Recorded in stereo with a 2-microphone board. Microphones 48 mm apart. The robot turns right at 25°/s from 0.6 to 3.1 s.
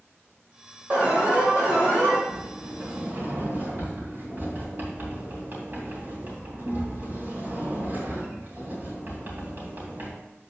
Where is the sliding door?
60° right (ahead or behind), 3 m; by 10.1 s 40° right (ahead or behind), 3 m.